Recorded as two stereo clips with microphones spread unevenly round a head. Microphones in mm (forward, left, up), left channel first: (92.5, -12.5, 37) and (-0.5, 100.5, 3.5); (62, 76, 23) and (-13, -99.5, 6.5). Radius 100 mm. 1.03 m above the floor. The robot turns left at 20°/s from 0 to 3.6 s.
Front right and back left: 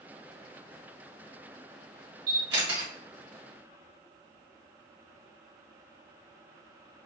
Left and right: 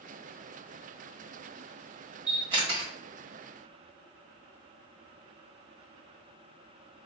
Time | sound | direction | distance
2.3 | a camera shutter | straight behind | 1.5 m